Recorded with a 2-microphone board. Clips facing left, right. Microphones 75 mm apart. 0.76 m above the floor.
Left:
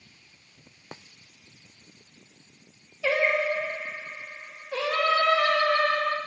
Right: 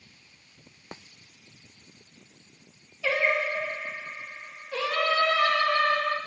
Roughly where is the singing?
Centre.